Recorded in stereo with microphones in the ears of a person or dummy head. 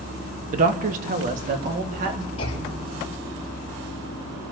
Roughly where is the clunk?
Left.